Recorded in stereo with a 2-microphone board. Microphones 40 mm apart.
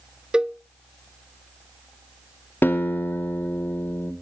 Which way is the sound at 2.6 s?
55° left (ahead or behind).